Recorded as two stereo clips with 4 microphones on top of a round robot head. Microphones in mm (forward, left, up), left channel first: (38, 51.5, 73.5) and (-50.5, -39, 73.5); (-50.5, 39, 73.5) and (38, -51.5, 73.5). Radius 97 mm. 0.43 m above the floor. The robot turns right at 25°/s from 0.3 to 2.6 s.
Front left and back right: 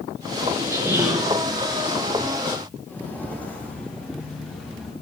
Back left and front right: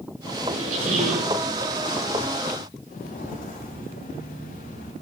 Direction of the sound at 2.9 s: 120° left.